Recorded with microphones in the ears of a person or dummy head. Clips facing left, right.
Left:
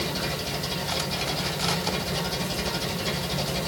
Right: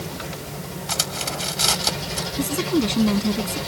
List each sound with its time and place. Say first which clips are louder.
0.9 s cutlery clinking: right 2 dB; 70° right (ahead or behind)
2.4 s a woman speaking: right 10 dB; 75° right (ahead or behind)